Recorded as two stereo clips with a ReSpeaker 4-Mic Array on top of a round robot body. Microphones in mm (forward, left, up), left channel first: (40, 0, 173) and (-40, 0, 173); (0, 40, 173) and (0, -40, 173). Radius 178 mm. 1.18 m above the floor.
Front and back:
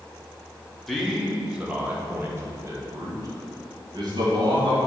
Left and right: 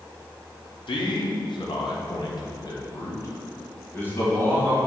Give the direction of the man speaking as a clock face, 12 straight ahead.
9 o'clock.